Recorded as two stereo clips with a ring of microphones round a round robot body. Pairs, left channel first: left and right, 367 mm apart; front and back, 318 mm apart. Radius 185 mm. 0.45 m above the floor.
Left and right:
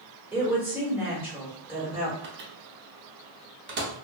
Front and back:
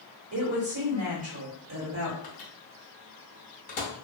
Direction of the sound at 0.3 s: 175° right.